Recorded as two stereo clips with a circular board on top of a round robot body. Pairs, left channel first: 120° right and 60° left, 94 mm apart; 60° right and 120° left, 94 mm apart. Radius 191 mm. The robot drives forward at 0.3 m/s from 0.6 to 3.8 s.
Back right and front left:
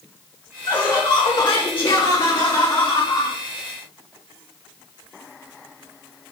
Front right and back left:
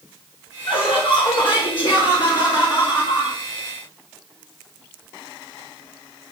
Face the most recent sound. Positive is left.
turn(degrees=-105)